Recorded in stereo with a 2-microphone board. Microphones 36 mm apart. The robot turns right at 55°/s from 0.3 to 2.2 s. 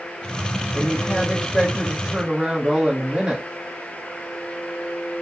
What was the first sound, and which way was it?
A woman speaking, 130° left.